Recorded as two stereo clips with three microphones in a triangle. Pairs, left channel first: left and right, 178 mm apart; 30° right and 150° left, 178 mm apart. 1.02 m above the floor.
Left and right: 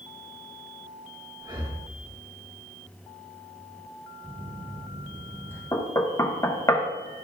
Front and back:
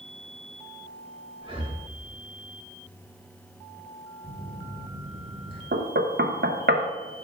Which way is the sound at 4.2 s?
165° left.